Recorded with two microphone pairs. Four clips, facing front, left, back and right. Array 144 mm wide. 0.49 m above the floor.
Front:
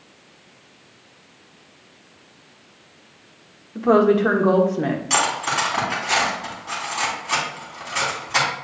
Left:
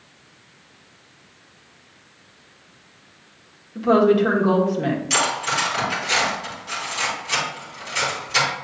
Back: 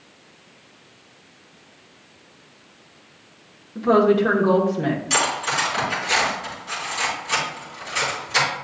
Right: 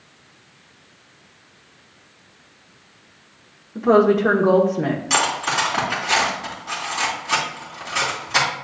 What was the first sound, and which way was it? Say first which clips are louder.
A woman speaking: right 1 dB, front 1 dB; 45° right.